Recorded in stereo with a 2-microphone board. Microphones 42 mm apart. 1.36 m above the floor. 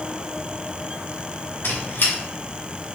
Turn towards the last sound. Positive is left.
turn(degrees=65)  # may be behind; listen again after turning